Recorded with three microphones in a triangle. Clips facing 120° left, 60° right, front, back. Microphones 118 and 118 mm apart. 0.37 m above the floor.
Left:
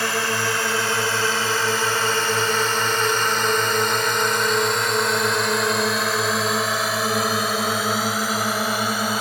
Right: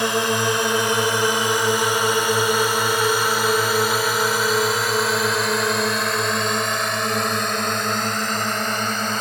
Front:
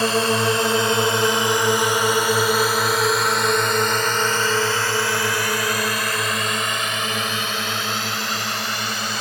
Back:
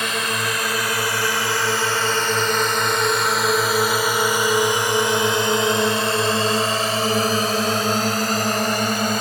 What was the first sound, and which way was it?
A drone, 5° right.